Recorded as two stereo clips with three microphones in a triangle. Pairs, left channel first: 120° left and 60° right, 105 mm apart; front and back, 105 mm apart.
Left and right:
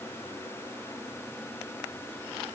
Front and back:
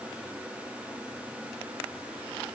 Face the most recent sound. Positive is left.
No sound to turn to.